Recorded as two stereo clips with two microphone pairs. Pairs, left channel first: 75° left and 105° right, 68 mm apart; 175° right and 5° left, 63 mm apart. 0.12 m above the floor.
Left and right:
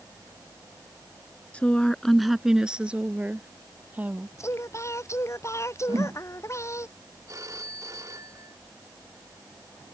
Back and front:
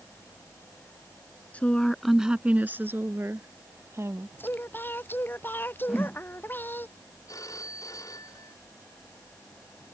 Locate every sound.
1.5 s a woman speaking: 135° left; by 4.3 s 40° right
4.4 s singing: 125° left
5.9 s a whoosh: 80° right
7.3 s a phone ringing: 145° right